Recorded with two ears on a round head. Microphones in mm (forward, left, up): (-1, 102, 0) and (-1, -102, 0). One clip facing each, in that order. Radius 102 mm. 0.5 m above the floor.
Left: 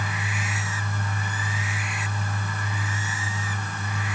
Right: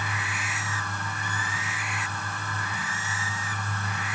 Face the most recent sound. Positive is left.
No sound to turn to.